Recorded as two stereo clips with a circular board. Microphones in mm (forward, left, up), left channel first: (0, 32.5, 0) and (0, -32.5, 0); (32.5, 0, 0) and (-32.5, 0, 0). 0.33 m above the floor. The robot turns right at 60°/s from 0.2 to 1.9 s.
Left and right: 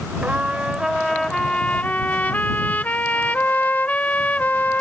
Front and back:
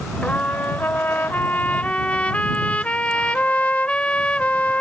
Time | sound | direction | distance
0.2 | a trumpet | 50° right | ?